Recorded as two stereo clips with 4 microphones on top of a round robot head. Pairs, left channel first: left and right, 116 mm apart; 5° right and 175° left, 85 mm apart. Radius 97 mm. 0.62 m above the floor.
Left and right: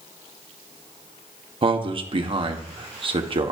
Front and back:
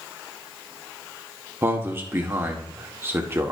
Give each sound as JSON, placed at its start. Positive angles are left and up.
{"t": 1.6, "sound": "a man speaking", "azimuth_deg": -125, "distance_m": 1.5}